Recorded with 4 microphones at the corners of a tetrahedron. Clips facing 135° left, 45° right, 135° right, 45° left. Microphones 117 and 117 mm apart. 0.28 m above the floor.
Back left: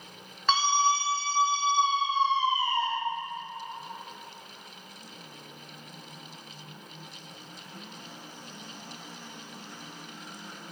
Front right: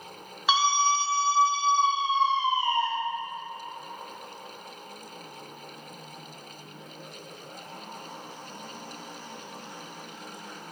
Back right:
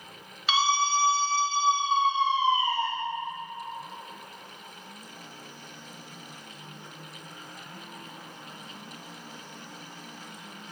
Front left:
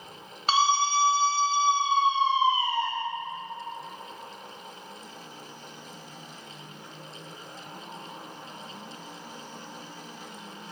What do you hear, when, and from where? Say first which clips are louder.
0.5 s a scream: front right 1 dB, front left 2 dB; 30° left, 1.9 m; by 2.9 s 20° right, 3.5 m